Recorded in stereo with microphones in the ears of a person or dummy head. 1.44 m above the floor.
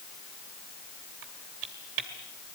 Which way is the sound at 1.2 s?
60° right (ahead or behind).